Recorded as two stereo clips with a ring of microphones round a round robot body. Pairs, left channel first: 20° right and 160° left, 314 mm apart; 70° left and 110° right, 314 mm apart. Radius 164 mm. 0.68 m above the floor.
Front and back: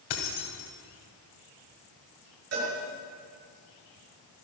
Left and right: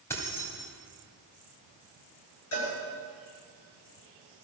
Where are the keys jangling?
15° right, 2.5 m.